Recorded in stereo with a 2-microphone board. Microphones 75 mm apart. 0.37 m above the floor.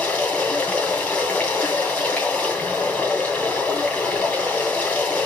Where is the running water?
20° left (ahead or behind), 2 m.